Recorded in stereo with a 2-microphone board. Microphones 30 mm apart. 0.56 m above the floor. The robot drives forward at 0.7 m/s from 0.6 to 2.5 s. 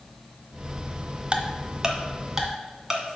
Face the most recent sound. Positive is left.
turn(degrees=-15)  # may be behind; listen again after turning